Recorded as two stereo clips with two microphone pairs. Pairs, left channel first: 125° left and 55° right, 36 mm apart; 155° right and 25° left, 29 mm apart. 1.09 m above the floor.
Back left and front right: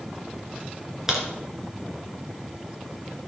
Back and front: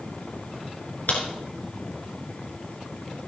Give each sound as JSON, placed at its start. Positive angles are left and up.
{"t": 1.1, "sound": "a crack", "azimuth_deg": -130, "distance_m": 2.5}